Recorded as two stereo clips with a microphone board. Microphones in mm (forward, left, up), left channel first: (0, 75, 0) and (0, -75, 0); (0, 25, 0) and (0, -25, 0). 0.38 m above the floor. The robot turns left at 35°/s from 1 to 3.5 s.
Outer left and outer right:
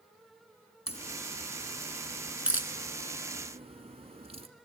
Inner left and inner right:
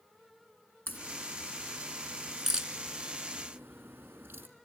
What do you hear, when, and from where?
0.9 s a crack: 45° left (ahead or behind), 2.0 m; by 4.5 s 45° right (ahead or behind), 2.0 m